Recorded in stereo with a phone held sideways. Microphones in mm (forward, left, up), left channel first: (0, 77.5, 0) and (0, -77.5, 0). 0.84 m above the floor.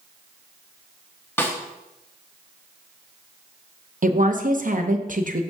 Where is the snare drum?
15° left (ahead or behind), 1.1 m.